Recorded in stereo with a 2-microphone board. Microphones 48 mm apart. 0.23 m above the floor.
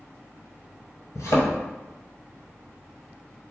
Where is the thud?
70° left (ahead or behind), 0.8 m.